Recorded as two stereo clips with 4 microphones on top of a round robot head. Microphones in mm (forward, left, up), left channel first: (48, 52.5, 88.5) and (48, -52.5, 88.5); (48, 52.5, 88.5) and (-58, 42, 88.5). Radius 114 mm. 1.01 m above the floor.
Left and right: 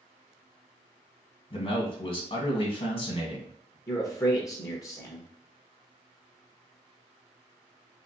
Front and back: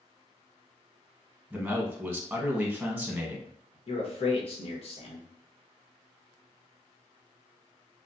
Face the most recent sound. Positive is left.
turn(degrees=35)